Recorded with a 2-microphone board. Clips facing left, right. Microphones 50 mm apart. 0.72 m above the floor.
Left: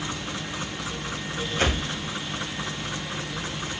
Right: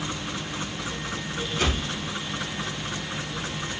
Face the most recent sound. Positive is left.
turn(degrees=45)  # may be behind; listen again after turning